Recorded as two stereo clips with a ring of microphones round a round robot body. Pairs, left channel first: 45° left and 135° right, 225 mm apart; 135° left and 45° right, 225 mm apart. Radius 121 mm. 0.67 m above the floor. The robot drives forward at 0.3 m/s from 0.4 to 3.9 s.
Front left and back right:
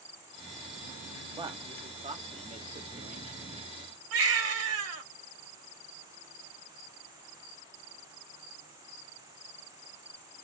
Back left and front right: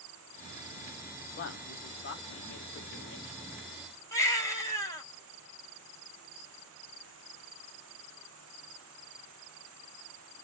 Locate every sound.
1.4 s a man speaking: 155° left, 0.8 m; by 3.5 s 170° left, 1.4 m
4.1 s a baby crying: 150° right, 1.9 m